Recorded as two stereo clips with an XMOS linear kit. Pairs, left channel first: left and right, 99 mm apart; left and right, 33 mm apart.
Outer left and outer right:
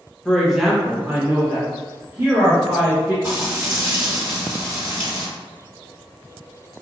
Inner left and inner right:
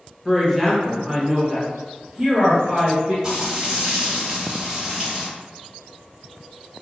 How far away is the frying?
About 1.4 m.